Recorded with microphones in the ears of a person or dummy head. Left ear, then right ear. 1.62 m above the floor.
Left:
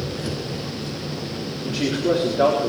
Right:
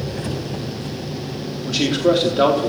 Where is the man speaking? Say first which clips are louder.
Right 5 dB; 35° right (ahead or behind), 4.5 m.